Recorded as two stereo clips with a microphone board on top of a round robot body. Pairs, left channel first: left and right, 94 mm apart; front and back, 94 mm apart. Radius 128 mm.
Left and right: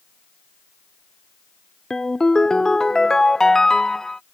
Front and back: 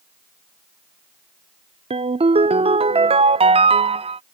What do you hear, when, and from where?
1.9 s a ringtone: 175° left